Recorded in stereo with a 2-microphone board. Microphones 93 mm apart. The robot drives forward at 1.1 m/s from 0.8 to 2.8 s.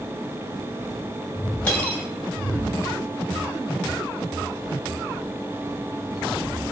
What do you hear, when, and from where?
1.7 s cutlery clinking: 15° left (ahead or behind), 2 m